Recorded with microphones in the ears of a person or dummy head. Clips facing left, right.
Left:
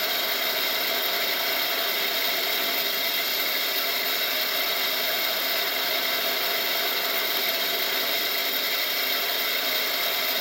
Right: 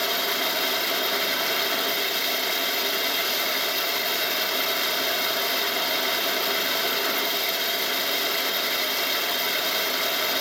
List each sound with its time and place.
0.0 s running water: centre (ahead or behind)